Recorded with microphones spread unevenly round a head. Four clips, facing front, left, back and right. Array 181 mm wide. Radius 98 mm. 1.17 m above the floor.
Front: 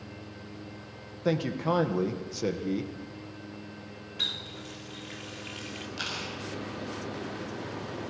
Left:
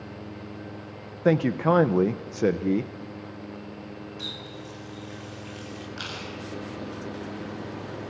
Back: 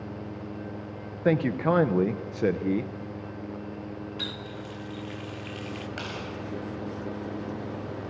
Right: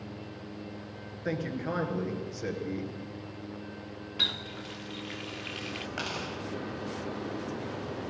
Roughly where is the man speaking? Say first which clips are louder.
Left 12 dB, back 4 dB; left.